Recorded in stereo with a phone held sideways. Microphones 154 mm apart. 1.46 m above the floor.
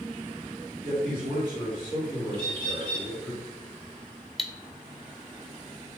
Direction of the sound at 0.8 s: 10° right (ahead or behind).